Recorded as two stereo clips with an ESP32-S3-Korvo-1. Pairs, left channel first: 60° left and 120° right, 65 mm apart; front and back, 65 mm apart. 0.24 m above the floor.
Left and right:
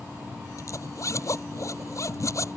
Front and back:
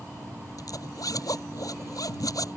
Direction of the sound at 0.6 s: 25° left.